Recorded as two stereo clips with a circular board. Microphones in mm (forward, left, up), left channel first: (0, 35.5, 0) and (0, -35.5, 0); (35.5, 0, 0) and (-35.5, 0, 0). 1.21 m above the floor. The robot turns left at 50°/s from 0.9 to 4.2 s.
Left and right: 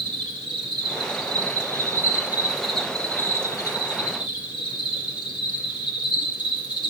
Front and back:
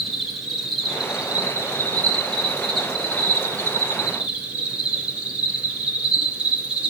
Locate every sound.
0.0 s an insect: 90° right, 1.4 m; by 6.9 s 105° left, 1.4 m